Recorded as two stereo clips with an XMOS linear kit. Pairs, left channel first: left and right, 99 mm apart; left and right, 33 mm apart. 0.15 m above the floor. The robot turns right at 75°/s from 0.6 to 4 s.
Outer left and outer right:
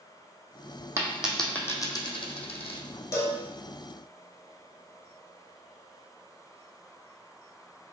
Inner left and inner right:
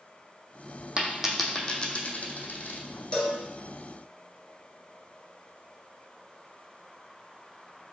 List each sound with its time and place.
1.0 s a dropped coin: 30° right (ahead or behind), 0.6 m; by 2.8 s 70° left (ahead or behind), 0.6 m
3.1 s a cowbell: 30° left (ahead or behind), 0.6 m; by 3.4 s 10° left (ahead or behind), 0.6 m